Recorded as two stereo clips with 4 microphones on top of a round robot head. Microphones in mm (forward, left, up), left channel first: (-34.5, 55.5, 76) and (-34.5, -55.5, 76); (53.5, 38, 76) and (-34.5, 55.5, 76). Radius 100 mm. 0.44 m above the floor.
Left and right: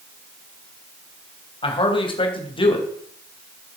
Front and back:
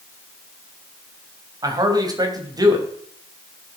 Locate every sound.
1.6 s a man speaking: 125° left, 3.5 m